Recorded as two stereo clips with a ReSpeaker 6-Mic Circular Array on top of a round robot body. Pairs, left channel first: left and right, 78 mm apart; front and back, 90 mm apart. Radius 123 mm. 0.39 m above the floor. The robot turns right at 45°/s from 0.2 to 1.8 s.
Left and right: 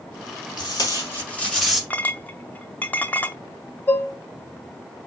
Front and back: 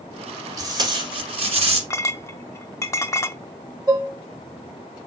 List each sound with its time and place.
0.6 s tape being pulled: 125° left, 1.3 m; by 1.8 s straight behind, 1.3 m
1.9 s a clink: 30° left, 0.7 m
3.9 s dishes clattering: 145° left, 0.9 m